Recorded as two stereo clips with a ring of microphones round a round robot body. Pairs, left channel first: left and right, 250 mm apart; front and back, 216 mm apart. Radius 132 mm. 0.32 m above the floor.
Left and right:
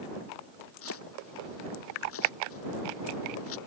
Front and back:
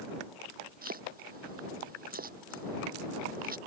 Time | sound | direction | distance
0.8 | chopping | 130° left | ?